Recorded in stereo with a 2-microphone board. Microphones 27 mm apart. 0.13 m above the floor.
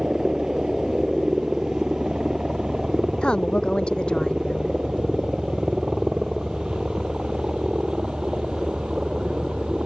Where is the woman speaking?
35° left (ahead or behind).